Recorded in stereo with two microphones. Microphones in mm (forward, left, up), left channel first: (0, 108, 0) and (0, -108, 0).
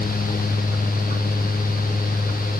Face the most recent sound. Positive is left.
No sound to turn to.